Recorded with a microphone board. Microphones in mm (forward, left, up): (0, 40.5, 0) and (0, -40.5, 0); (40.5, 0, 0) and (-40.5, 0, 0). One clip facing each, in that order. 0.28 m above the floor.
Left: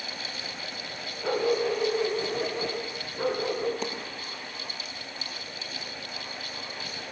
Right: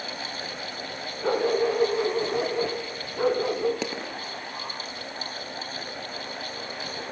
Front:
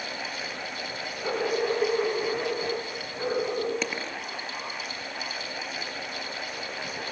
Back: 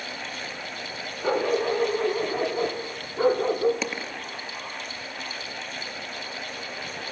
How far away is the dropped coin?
About 2.5 m.